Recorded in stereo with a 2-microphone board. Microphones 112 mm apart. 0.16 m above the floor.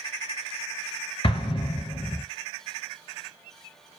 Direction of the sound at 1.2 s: 50° left (ahead or behind).